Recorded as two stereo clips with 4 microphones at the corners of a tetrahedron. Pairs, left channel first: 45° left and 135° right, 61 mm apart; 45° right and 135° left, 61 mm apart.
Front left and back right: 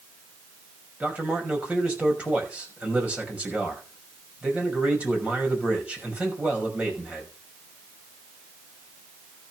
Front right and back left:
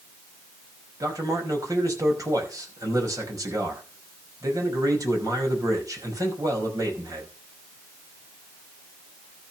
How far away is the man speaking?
About 5.5 m.